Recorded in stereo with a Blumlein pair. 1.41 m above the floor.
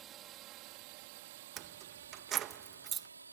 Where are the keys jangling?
30° right.